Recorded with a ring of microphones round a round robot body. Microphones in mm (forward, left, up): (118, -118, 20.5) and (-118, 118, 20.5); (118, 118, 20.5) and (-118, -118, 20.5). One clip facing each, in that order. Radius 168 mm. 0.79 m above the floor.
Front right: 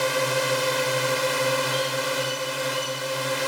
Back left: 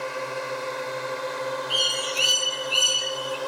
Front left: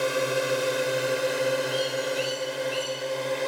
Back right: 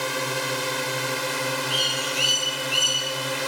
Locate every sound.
0.0 s a drone: 60° right; by 3.5 s 80° right
1.7 s a bird: 170° left